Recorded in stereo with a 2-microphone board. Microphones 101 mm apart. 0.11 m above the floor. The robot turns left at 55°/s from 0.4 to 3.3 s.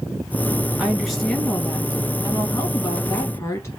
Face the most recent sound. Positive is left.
turn(degrees=55)